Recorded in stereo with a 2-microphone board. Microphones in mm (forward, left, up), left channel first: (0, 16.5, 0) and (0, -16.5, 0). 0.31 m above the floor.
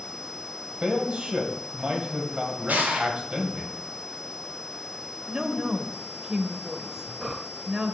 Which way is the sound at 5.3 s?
25° right (ahead or behind).